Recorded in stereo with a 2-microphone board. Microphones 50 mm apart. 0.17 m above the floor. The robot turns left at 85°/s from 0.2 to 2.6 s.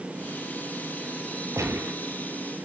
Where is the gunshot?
90° right, 1.5 m; by 2.0 s 125° right, 1.5 m.